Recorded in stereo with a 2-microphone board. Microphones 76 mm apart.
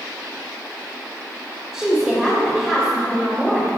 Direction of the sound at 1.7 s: 5° left (ahead or behind).